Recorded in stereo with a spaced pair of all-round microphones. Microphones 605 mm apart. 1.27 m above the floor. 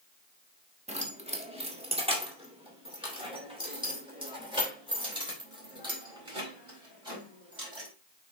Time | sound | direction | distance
0.9 | keys jangling | 10° right (ahead or behind) | 1.2 m